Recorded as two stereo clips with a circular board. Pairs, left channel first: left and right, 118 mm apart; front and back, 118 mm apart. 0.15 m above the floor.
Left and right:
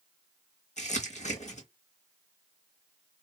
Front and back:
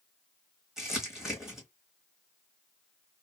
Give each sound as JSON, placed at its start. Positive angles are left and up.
{"t": 0.8, "sound": "crumpling", "azimuth_deg": 95, "distance_m": 1.7}